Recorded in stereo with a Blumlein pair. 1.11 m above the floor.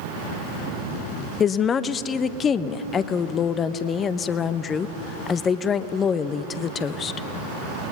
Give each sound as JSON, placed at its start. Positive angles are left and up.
{"t": 1.4, "sound": "a woman speaking", "azimuth_deg": 25, "distance_m": 0.9}